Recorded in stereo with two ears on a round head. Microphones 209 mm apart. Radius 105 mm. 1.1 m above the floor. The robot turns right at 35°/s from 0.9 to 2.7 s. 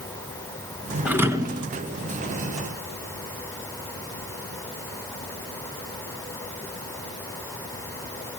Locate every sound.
1.1 s a thud: 5° right (ahead or behind), 1.5 m; by 1.7 s 25° right (ahead or behind), 1.5 m